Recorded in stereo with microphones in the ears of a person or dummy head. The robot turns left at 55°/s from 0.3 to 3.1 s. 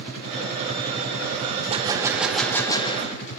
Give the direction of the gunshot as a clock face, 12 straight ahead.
5 o'clock.